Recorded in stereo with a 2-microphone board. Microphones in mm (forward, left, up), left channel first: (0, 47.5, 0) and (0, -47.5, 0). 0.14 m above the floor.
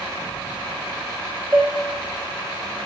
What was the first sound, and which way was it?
Dishes clattering, 20° right (ahead or behind).